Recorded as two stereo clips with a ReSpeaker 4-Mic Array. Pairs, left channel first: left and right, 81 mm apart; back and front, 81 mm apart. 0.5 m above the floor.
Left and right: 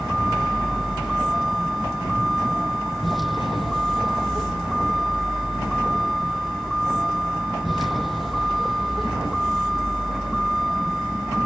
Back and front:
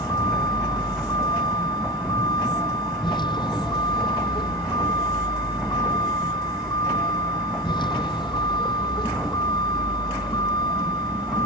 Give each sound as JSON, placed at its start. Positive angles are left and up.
{"t": 0.0, "sound": "a vehicle", "azimuth_deg": 180}